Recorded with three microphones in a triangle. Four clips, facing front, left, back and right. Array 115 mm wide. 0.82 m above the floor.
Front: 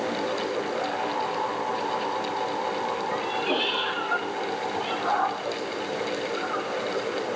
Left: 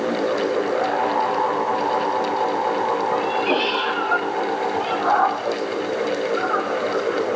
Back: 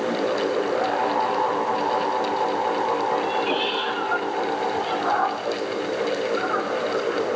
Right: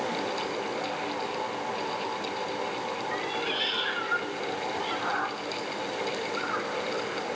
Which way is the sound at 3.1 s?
90° left.